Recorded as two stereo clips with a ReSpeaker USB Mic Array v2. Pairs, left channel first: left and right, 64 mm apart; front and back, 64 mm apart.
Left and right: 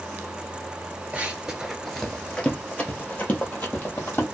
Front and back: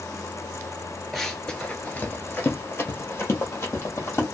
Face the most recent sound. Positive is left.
turn(degrees=45)